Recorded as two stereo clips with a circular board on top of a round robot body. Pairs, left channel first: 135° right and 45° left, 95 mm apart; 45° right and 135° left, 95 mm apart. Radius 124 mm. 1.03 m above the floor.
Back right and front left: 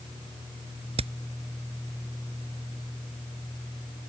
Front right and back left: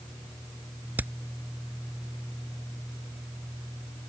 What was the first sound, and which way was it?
Hammering, 60° left.